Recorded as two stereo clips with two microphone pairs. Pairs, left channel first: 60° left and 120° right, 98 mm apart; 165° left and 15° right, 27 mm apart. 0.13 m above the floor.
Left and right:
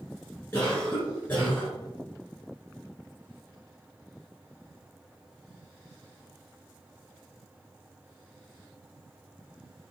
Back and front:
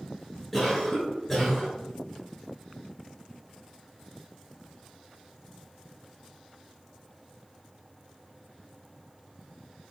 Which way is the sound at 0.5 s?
105° left.